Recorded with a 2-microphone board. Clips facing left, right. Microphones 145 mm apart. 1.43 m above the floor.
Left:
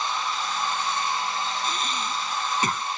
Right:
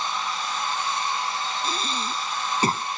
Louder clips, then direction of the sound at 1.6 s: Right 1 dB; 30° right (ahead or behind).